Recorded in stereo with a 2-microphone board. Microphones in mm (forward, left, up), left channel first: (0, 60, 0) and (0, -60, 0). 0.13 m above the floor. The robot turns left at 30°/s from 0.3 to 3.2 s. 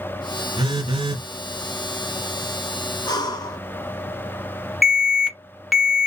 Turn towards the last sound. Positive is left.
turn(degrees=0)  # may be behind; listen again after turning